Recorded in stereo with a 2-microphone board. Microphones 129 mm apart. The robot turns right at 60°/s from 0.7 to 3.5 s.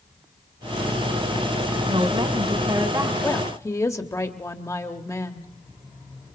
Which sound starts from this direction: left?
A woman speaking, at 3.2 s.